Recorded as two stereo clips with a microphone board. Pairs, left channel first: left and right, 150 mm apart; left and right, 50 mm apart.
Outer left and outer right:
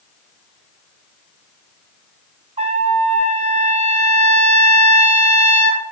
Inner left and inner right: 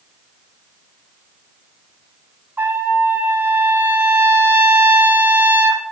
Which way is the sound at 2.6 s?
45° right (ahead or behind).